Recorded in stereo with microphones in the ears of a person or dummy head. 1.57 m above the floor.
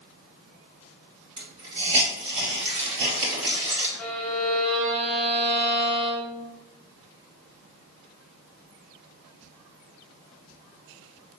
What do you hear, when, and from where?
1.4 s a hiss: 30° right (ahead or behind), 2 m
4.0 s a violin: 10° left (ahead or behind), 0.8 m